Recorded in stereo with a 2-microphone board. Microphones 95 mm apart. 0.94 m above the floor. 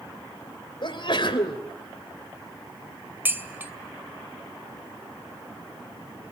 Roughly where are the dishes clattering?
Right.